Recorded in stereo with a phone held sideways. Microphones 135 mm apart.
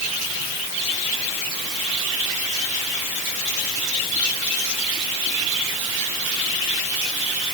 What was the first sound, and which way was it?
Only background noise.